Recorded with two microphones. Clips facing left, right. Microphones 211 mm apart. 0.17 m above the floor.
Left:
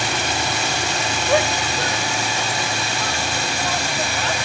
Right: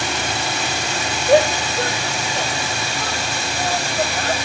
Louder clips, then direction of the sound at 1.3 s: Right 6 dB; 35° right (ahead or behind).